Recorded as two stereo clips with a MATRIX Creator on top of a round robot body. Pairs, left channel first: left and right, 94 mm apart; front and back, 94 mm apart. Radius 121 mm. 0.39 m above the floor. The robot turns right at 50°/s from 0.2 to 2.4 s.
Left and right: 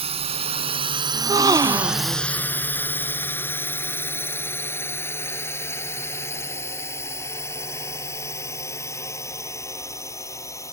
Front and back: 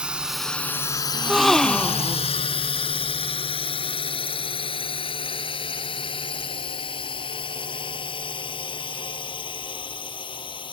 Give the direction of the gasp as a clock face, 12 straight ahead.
3 o'clock.